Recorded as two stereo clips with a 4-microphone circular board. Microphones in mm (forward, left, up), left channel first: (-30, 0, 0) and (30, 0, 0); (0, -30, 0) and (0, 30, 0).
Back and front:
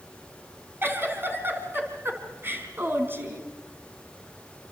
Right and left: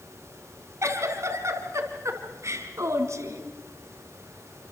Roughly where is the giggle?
Ahead left.